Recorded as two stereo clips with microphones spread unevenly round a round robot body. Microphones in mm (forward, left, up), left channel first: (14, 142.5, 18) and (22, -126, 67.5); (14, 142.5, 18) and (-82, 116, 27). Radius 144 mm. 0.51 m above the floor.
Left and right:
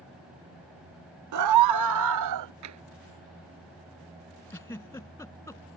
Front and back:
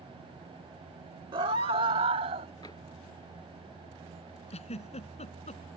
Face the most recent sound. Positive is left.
turn(degrees=10)